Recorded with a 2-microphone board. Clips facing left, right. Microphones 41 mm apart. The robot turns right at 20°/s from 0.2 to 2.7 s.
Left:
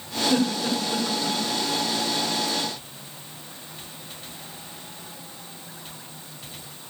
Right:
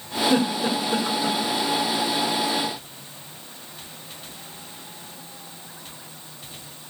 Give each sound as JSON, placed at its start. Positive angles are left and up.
{"t": 0.3, "sound": "a giggle", "side_deg": -25, "distance_m": 2.5}